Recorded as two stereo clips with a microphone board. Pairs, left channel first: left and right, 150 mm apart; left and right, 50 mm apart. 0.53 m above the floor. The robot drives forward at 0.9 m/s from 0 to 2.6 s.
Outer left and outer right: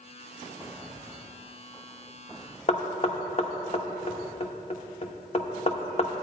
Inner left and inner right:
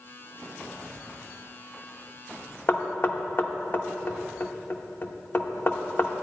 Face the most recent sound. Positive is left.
turn(degrees=45)  # may be behind; listen again after turning